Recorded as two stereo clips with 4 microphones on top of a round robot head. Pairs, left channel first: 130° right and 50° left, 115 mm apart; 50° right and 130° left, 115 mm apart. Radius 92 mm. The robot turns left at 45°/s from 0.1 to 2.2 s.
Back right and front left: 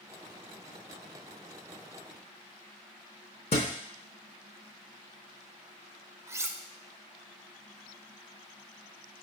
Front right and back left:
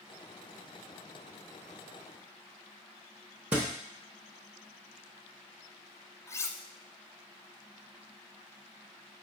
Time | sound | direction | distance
3.5 | a thud | 155° right | 0.5 m
6.3 | cutlery clinking | straight ahead | 0.5 m